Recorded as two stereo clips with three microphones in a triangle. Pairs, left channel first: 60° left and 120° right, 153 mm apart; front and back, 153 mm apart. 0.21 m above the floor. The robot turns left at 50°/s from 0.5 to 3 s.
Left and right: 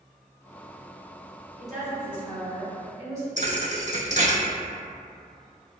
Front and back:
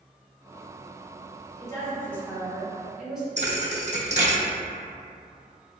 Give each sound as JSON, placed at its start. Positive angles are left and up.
{"t": 1.6, "sound": "a woman speaking", "azimuth_deg": -25, "distance_m": 1.4}
{"t": 3.4, "sound": "a thud", "azimuth_deg": -150, "distance_m": 0.5}